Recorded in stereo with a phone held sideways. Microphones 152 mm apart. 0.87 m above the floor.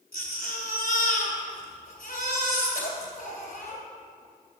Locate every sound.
0.1 s a baby crying: 70° left (ahead or behind), 3 m